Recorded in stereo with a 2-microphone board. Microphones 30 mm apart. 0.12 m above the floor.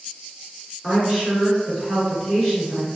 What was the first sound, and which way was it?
A woman speaking, 20° right (ahead or behind).